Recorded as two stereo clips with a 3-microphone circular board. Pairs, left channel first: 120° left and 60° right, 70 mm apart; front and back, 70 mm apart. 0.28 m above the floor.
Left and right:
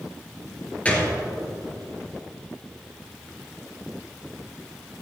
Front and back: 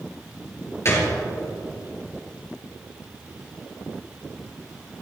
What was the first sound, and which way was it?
A gunshot, 50° left.